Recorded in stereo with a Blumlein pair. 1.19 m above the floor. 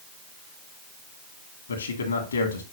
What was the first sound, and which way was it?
A man speaking, 70° left.